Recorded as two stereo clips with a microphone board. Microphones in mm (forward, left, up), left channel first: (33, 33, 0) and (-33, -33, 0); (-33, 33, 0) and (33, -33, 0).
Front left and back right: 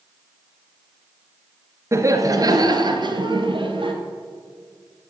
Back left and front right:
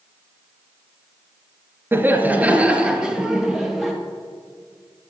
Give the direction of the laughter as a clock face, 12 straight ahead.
3 o'clock.